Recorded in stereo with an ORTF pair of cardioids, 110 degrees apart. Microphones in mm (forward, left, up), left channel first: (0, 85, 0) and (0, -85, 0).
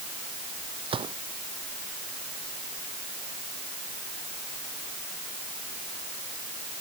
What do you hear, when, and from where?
0.9 s a gunshot: 35° right